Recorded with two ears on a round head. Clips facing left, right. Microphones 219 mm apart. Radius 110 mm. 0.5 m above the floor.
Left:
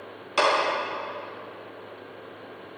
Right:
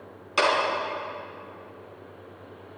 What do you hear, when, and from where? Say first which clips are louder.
0.4 s a clap: left 1 dB; 5° right (ahead or behind), 4 m